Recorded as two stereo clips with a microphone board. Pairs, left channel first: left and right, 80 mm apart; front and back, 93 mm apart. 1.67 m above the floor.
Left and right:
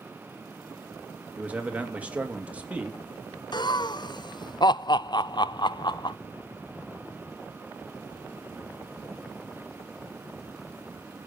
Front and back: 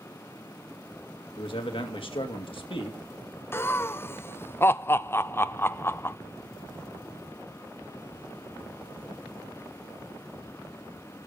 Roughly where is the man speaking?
Ahead.